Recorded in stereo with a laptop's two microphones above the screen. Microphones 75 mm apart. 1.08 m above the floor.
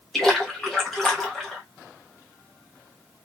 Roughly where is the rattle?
I don't hear a rattle.